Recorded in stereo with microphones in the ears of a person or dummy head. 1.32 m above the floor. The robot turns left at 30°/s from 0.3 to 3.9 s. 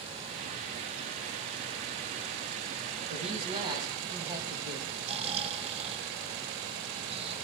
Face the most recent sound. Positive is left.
turn(degrees=-30)  # may be behind; listen again after turning